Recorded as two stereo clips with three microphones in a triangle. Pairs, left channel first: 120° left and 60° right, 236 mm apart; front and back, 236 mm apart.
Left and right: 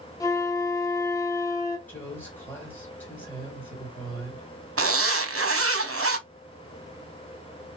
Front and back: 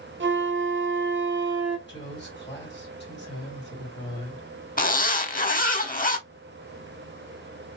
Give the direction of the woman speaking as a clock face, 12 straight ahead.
11 o'clock.